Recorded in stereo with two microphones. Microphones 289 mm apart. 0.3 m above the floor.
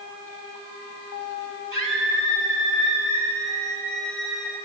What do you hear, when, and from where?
1.7 s a scream: 45° left (ahead or behind), 8.5 m; by 4.5 s 40° left (ahead or behind), 9.5 m